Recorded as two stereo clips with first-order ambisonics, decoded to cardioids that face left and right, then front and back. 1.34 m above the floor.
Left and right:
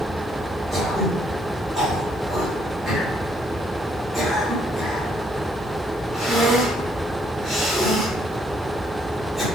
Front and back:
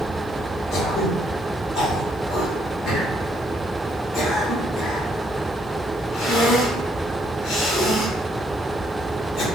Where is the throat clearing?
5° right, 0.9 m.